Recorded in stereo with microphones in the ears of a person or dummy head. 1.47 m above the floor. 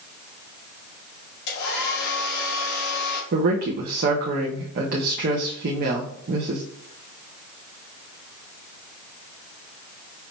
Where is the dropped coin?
I don't hear a dropped coin.